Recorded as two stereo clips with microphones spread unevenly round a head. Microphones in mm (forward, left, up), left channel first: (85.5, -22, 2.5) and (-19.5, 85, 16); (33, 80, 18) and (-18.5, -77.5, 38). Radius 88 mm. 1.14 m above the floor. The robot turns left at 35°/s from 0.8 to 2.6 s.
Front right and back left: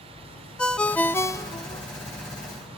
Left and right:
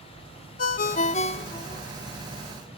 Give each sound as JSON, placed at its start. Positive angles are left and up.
{"t": 0.6, "sound": "a ringtone", "azimuth_deg": 40, "distance_m": 0.8}